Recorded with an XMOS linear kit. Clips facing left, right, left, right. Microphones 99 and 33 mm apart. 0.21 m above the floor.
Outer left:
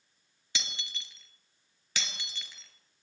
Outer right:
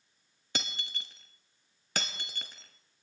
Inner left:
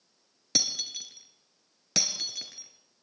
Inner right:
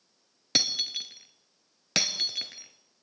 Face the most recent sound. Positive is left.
turn(degrees=-50)  # may be behind; listen again after turning